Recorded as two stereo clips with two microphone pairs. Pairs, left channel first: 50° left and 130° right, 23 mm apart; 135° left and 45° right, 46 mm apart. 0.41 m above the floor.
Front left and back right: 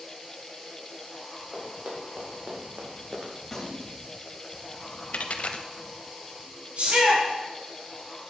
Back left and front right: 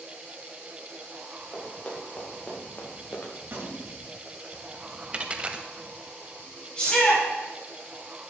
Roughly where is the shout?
Behind.